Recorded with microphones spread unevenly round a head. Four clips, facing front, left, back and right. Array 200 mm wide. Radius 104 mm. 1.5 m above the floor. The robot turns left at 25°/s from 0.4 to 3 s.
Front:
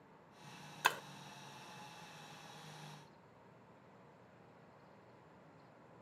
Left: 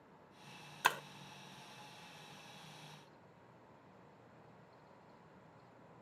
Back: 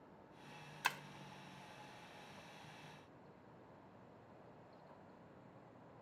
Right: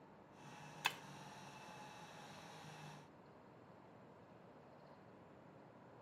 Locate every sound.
0.8 s breaking glass: 50° left; by 1.0 s 45° left